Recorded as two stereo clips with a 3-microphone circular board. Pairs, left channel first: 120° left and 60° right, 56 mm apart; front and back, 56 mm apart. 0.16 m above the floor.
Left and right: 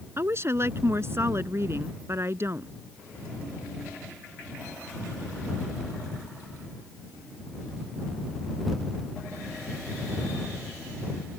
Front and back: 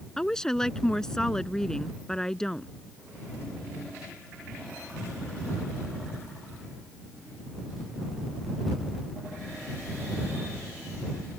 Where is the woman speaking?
75° right.